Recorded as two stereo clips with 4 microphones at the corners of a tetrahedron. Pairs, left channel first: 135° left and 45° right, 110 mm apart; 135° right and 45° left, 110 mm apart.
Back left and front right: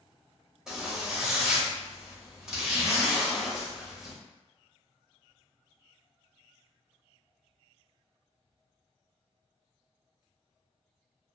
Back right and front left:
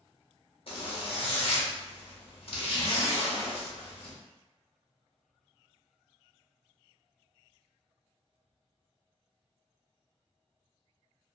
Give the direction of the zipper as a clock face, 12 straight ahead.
4 o'clock.